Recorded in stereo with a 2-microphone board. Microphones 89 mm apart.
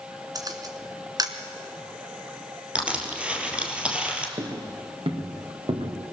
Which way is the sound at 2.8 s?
10° right (ahead or behind).